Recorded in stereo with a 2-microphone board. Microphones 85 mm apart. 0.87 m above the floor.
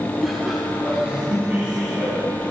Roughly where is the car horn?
No car horn in this recording.